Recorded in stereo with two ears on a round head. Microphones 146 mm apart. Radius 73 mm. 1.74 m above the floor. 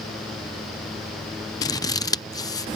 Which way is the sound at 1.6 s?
20° left (ahead or behind).